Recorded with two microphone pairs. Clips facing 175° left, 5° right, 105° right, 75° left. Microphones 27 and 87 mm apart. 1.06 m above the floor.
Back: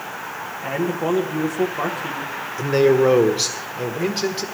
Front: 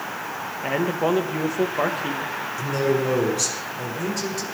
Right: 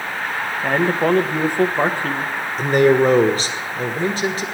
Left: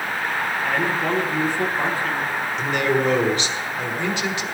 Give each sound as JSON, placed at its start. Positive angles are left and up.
{"t": 0.6, "sound": "a man speaking", "azimuth_deg": -75, "distance_m": 1.2}
{"t": 2.6, "sound": "a man speaking", "azimuth_deg": -150, "distance_m": 1.2}